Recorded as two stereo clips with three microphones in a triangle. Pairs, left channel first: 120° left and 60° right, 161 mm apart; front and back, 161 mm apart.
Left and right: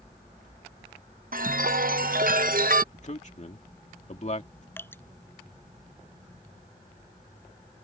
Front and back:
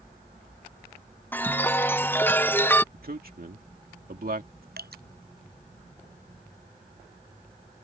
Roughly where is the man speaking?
Behind.